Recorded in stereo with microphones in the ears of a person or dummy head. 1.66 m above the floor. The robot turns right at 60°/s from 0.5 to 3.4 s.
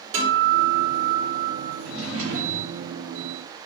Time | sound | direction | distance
0.1 | a guitar | 25° right | 1.7 m
1.8 | a drawer | 175° left | 1.9 m